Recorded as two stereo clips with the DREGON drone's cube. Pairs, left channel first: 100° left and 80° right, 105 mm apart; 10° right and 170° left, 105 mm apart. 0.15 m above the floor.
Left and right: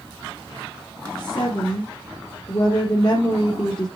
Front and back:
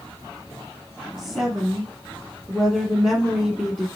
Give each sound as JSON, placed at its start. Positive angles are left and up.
{"t": 1.2, "sound": "a woman speaking", "azimuth_deg": 85, "distance_m": 2.5}